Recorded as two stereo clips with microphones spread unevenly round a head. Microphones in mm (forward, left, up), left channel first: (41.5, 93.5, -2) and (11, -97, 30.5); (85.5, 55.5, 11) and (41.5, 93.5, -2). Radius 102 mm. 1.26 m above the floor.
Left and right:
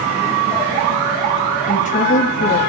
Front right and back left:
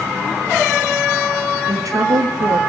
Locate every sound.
1.7 s a woman speaking: 135° left, 2.5 m